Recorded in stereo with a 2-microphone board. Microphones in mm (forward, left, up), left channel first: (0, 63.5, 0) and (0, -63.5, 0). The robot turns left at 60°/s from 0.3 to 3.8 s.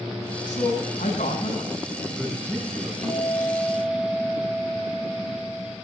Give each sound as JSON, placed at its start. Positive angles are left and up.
{"t": 0.5, "sound": "a man speaking", "azimuth_deg": 135, "distance_m": 7.5}
{"t": 3.0, "sound": "a guitar", "azimuth_deg": 40, "distance_m": 4.0}